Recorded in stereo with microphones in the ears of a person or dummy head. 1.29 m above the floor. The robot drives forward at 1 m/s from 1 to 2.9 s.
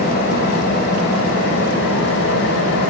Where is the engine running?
65° left (ahead or behind), 4 m; by 2.9 s 80° left, 3.5 m.